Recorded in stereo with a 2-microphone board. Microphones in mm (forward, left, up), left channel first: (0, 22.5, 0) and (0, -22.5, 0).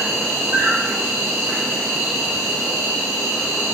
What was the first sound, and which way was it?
An insect, 85° right.